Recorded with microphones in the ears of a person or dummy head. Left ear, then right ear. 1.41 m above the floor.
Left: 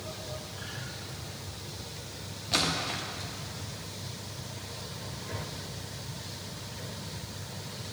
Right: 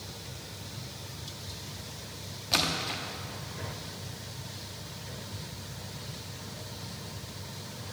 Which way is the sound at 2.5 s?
15° right (ahead or behind).